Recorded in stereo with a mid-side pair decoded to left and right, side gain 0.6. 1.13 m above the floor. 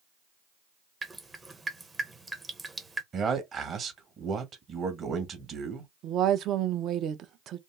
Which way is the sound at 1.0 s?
20° right.